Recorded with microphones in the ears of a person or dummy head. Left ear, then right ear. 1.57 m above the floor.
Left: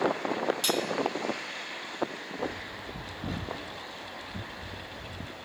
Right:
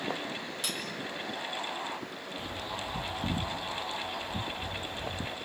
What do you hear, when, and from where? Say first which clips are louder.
0.6 s cutlery clinking: left 5 dB; 20° left (ahead or behind), 2 m
2.4 s a bird: even; 20° right (ahead or behind), 2 m